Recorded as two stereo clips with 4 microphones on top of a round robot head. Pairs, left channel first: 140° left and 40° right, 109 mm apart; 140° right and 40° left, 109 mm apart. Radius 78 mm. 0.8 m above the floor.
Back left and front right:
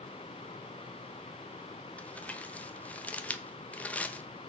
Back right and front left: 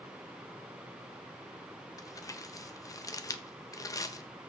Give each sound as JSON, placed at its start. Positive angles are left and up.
{"t": 2.0, "sound": "crumpling", "azimuth_deg": -155, "distance_m": 1.0}